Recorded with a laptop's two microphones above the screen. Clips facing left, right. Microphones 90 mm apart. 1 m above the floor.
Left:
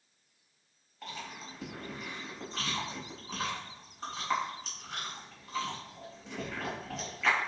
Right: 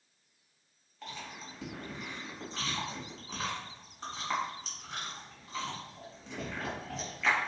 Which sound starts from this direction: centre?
Chewing, at 1.0 s.